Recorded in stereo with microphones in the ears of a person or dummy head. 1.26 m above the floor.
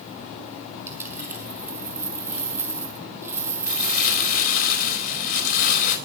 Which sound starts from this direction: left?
Crumpling, at 3.7 s.